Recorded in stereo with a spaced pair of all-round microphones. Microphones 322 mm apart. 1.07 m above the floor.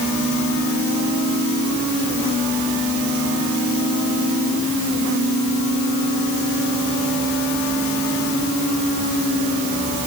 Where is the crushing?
I don't hear crushing.